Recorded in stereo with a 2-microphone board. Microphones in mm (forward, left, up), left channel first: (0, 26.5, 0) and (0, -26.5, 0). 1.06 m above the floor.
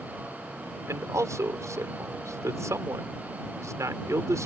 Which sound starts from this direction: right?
A man speaking, at 0.9 s.